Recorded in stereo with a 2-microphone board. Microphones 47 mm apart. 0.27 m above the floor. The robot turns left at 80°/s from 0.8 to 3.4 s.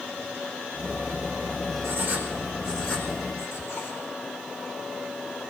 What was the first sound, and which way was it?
Writing, 50° right (ahead or behind).